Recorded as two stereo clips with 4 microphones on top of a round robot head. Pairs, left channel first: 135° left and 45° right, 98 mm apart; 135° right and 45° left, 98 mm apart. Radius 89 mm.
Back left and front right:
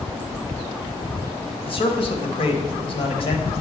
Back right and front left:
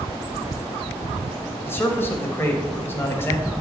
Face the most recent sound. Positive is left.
turn(degrees=155)